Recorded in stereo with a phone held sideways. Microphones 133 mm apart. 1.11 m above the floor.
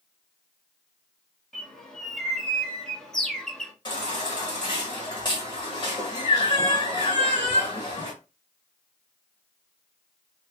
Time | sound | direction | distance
1.5 | a bird | 5° left (ahead or behind) | 1.2 m
3.9 | a baby crying | 40° left (ahead or behind) | 1.6 m